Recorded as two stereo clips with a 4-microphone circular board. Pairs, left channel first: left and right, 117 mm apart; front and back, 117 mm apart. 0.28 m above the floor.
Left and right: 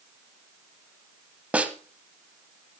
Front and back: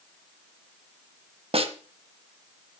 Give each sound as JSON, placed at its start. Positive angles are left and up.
{"t": 1.5, "sound": "a snare drum", "azimuth_deg": -165, "distance_m": 1.2}